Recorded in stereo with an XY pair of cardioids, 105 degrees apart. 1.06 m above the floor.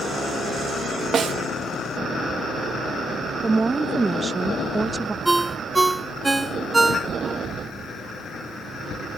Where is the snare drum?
50° right.